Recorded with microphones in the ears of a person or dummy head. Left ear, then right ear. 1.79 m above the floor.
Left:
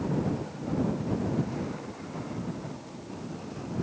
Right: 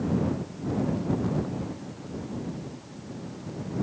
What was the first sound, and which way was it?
Only background noise.